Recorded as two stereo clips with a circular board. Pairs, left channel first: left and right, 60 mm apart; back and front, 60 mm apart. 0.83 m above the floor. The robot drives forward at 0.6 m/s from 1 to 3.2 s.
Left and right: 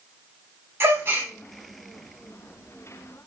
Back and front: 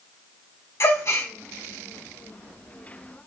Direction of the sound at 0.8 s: 140° right.